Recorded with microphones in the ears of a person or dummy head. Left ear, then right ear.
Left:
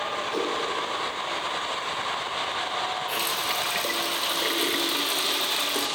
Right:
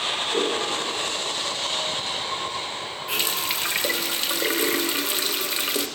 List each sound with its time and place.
0.3 s a whoosh: 65° left (ahead or behind), 3.5 m
3.1 s a running tap: 10° right (ahead or behind), 0.6 m